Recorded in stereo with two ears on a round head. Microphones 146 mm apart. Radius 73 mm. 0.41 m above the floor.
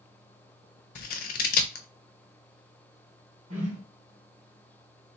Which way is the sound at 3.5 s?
50° right (ahead or behind).